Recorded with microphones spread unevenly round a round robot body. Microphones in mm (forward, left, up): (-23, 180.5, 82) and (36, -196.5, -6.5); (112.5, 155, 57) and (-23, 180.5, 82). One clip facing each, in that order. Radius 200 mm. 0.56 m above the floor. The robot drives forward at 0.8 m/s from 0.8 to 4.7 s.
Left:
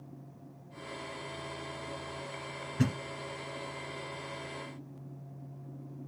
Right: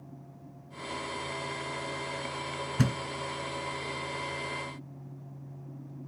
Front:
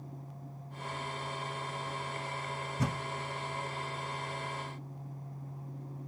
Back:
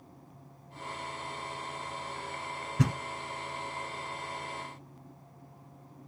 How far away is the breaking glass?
I don't hear breaking glass.